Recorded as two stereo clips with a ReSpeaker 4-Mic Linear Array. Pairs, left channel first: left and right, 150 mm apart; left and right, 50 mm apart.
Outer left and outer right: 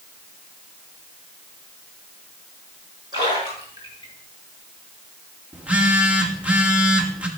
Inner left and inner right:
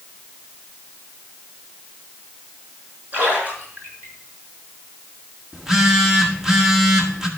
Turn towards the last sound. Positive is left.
turn(degrees=-10)  # may be behind; listen again after turning